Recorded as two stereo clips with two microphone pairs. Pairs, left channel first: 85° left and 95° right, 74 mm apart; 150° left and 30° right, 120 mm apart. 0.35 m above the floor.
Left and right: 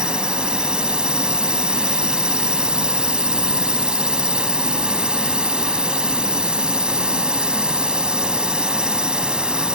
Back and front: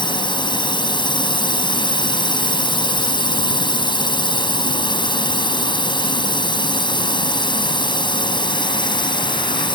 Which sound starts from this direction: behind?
A drone, at 0.0 s.